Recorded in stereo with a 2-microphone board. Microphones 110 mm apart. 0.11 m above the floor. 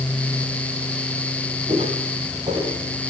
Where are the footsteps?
65° right (ahead or behind), 9.5 m.